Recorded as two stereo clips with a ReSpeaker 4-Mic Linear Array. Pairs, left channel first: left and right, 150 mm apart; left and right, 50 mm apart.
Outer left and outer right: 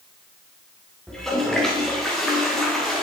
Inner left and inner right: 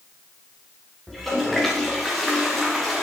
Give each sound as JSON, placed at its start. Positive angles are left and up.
{"t": 1.1, "sound": "a toilet flushing", "side_deg": 5, "distance_m": 3.5}